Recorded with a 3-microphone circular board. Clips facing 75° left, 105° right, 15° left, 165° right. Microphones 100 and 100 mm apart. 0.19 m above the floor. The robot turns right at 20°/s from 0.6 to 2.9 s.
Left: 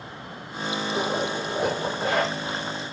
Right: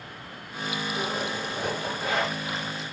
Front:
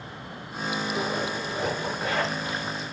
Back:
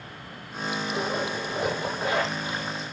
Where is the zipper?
100° left, 3.5 m; by 2.7 s 135° left, 3.5 m.